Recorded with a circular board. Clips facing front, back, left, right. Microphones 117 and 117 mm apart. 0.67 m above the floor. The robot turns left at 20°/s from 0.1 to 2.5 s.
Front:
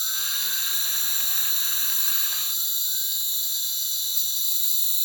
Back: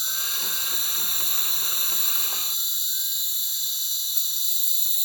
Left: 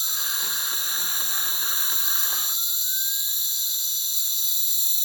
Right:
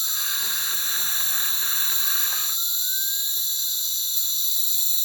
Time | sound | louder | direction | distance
0.0 | an insect | back 2 dB, even | 75° right | 0.9 m